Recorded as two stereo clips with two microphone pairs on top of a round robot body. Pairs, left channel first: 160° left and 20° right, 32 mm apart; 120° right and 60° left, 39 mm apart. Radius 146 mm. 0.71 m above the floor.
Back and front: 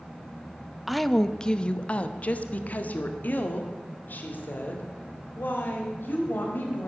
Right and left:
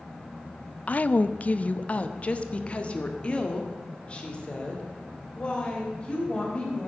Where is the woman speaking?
115° right, 0.7 m; by 6.9 s straight behind, 4 m.